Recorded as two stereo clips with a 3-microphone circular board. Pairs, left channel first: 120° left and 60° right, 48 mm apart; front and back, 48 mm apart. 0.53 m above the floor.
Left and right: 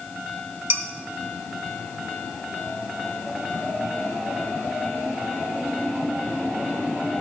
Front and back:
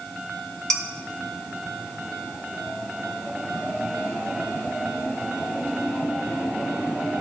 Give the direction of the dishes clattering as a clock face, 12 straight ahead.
3 o'clock.